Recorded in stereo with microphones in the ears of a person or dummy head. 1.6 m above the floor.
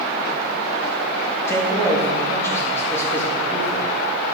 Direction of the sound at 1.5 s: 15° left (ahead or behind).